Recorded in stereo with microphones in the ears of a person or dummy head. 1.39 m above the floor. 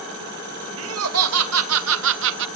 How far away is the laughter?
About 1.4 m.